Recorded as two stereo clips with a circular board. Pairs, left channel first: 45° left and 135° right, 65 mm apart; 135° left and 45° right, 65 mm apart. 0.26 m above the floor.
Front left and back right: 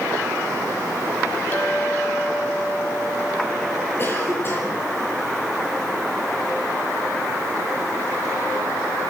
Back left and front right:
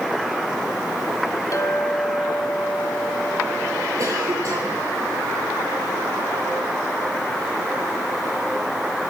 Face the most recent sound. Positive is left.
turn(degrees=-10)